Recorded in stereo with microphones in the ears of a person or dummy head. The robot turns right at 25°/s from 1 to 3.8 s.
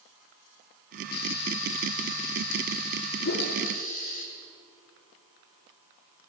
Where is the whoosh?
65° left (ahead or behind), 3.5 m; by 3.5 s 55° left (ahead or behind), 3.5 m.